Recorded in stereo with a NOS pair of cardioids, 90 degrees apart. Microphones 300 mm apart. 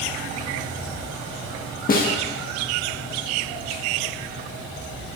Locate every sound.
1.9 s a snare drum: 30° left, 1.5 m